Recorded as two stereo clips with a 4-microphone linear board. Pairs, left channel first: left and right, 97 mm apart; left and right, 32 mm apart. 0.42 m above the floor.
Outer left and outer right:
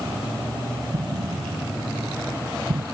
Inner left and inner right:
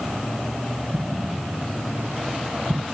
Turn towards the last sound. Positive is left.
turn(degrees=-65)  # may be behind; listen again after turning